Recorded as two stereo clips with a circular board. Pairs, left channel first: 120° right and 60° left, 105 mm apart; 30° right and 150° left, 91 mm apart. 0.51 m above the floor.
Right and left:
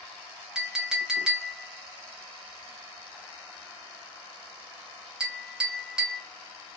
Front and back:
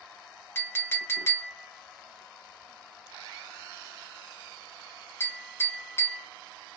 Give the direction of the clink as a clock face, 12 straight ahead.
12 o'clock.